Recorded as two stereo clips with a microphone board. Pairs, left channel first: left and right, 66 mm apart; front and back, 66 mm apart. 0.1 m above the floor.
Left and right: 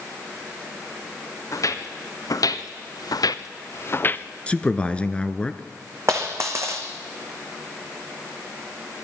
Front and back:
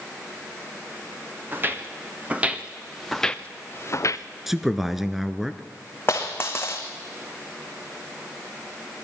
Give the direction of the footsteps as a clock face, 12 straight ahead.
8 o'clock.